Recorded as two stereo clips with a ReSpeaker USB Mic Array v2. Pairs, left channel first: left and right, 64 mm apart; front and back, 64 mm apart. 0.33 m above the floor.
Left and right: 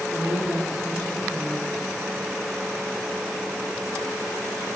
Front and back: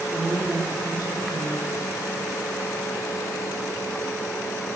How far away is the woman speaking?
About 6 m.